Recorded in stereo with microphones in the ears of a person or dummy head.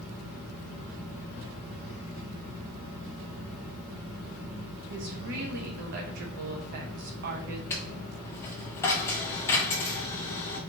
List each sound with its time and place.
4.9 s a woman speaking: 55° right (ahead or behind), 1.0 m
7.7 s a dropped coin: 20° left (ahead or behind), 0.6 m